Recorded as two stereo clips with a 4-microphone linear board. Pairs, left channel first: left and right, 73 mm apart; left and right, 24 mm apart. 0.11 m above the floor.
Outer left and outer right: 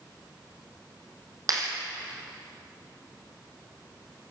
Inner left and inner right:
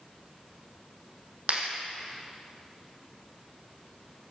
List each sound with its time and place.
1.5 s a clap: 55° right (ahead or behind), 4 m